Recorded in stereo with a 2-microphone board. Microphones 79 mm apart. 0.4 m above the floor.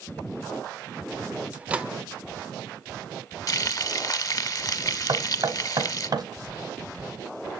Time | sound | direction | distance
1.5 | a microwave | 15° right (ahead or behind) | 0.6 m
3.5 | frying | 45° left (ahead or behind) | 0.8 m
5.1 | knocking | 55° right (ahead or behind) | 2 m